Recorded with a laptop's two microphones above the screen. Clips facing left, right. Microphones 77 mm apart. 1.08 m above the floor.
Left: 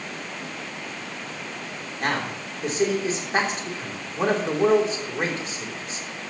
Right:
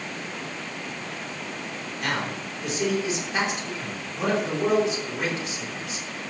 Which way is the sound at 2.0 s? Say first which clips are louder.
Left 2 dB; 40° left (ahead or behind).